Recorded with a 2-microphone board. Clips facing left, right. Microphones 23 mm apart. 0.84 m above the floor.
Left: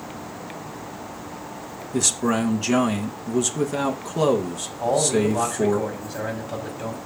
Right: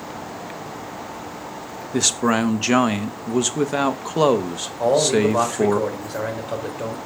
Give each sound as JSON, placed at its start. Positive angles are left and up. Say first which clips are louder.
{"t": 1.9, "sound": "a man speaking", "louder": "right 3 dB", "side_deg": -30, "distance_m": 0.6}
{"t": 4.8, "sound": "a man speaking", "louder": "right 3 dB", "side_deg": -70, "distance_m": 3.0}